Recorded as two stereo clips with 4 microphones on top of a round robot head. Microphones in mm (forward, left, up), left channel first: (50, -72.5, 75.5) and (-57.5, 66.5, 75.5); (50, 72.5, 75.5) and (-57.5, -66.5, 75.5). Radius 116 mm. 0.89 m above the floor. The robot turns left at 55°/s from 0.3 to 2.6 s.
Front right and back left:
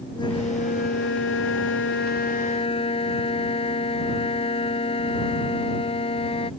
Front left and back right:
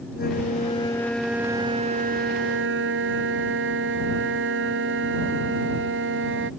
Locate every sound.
0.1 s a flute: 15° left; by 6.5 s 115° right